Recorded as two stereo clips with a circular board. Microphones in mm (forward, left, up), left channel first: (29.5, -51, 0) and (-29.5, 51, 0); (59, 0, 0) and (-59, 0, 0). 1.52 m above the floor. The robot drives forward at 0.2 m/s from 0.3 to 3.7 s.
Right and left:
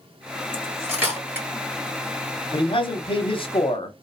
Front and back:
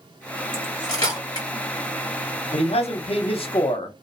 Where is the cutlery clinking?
45° left, 1.7 m; by 1.5 s 50° left, 1.6 m.